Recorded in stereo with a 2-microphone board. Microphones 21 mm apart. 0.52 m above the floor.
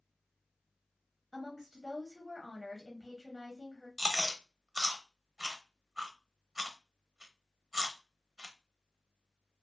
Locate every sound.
1.3 s a woman speaking: 5° right (ahead or behind), 0.8 m
4.0 s chewing: 20° right (ahead or behind), 0.5 m